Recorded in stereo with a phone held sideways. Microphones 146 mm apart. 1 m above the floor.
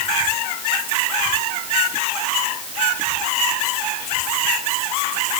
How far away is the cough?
I don't hear a cough.